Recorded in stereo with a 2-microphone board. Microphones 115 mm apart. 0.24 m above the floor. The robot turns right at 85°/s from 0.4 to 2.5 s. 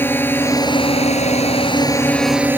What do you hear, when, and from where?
0.0 s a drone: 20° left; by 2.6 s 160° right